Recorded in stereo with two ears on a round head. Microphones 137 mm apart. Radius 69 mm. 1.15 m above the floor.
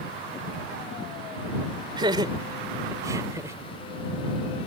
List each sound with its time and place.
2.0 s laughter: 30° right (ahead or behind); by 3.6 s 20° right (ahead or behind)